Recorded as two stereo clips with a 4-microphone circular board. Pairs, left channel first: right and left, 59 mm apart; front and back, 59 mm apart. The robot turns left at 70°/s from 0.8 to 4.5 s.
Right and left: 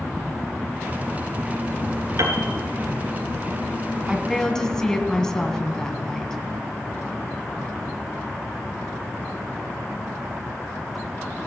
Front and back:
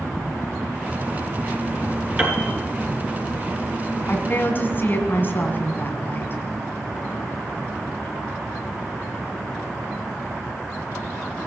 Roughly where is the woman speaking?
Ahead.